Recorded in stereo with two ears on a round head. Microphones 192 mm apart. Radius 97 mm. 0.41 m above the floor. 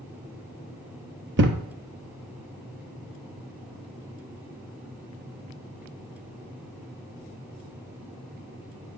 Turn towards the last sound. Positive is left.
turn(degrees=-60)  # may be behind; listen again after turning